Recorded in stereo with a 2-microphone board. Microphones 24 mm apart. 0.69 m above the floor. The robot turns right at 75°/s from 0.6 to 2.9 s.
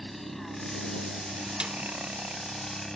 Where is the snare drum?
50° right (ahead or behind); by 1.8 s 40° right (ahead or behind).